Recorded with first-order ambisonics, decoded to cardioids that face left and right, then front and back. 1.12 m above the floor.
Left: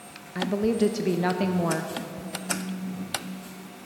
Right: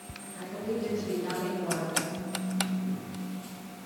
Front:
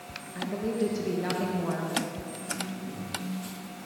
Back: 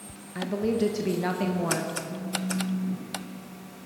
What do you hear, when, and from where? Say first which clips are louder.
0.3 s a woman speaking: left 9 dB, back 3 dB; 110° left, 0.9 m
2.1 s a phone buzzing: left 3 dB, back 3 dB; 160° left, 5.5 m